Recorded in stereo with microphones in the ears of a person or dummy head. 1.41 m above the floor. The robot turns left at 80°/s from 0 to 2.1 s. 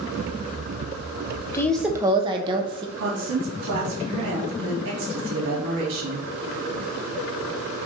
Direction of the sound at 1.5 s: 20° left.